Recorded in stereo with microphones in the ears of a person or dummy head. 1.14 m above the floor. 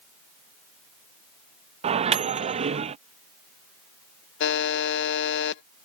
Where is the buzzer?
55° left (ahead or behind).